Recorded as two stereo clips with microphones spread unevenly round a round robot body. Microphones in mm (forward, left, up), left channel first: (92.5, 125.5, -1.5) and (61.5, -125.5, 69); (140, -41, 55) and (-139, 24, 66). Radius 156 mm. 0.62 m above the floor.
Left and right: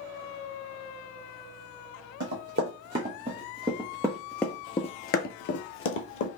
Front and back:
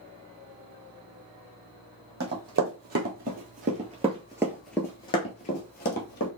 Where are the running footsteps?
140° right, 1.4 m; by 6.3 s 40° left, 1.0 m.